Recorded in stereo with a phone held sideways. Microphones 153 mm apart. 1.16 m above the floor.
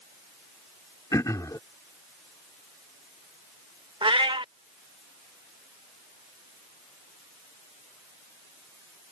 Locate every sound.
1.1 s throat clearing: 25° left (ahead or behind)
4.0 s a cat meowing: 35° right (ahead or behind)